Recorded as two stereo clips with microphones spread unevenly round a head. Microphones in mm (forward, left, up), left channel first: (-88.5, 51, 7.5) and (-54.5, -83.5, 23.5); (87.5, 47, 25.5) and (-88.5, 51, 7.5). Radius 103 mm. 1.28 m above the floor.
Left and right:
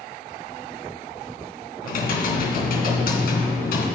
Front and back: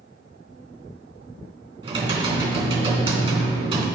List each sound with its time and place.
1.8 s typing on a keyboard: 120° left, 3 m